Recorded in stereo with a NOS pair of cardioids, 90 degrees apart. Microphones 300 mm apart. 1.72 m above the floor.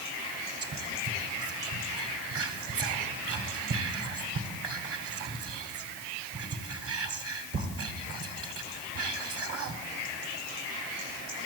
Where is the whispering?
50° right, 1.4 m.